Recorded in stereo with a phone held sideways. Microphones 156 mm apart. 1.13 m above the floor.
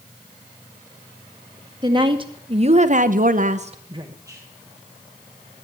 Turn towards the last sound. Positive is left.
turn(degrees=-15)  # may be behind; listen again after turning